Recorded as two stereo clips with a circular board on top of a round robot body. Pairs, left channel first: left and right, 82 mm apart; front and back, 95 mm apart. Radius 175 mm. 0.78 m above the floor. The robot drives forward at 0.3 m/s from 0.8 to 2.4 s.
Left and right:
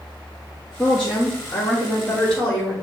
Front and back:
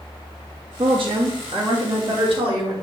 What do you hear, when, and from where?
0.8 s a woman speaking: 175° left, 2 m